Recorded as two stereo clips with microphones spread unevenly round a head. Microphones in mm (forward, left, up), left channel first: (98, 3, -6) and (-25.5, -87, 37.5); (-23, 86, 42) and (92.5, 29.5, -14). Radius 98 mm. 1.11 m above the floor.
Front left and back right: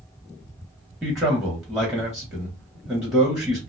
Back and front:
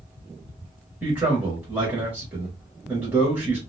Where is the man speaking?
35° right, 0.8 m.